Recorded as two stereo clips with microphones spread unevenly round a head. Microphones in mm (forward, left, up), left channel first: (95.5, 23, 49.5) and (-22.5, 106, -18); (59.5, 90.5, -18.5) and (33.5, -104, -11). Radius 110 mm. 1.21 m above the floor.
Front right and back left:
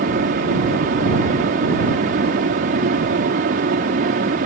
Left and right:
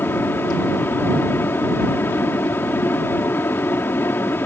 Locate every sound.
0.0 s a fan: 165° left